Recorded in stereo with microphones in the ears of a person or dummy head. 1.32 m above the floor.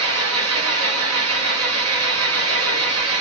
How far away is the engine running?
About 0.7 m.